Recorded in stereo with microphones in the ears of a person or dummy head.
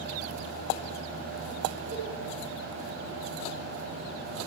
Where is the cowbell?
45° right (ahead or behind), 4.5 m.